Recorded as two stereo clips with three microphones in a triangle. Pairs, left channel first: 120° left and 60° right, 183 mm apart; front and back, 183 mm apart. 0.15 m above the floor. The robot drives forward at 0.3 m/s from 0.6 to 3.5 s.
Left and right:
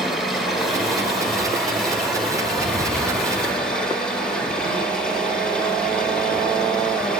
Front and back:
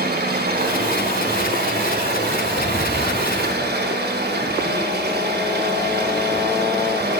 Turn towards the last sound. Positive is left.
turn(degrees=-155)